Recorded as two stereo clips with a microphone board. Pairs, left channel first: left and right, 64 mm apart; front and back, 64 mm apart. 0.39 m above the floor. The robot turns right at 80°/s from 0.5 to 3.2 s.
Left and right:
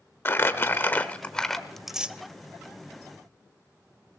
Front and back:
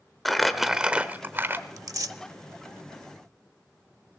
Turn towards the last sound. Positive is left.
turn(degrees=-70)